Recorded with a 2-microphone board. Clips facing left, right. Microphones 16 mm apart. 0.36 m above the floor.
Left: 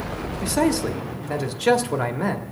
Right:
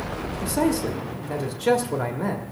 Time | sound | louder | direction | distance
0.4 | a man speaking | left 2 dB | 25° left (ahead or behind) | 1.0 m